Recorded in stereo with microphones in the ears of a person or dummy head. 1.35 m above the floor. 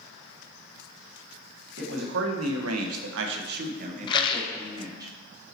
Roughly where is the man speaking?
Right.